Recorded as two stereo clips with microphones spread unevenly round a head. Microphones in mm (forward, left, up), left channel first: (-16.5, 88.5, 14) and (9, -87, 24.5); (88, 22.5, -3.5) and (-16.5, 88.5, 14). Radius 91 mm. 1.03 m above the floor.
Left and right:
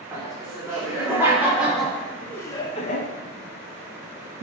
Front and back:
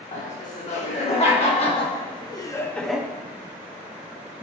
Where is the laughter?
10° right, 3 m; by 3.1 s 70° left, 0.8 m.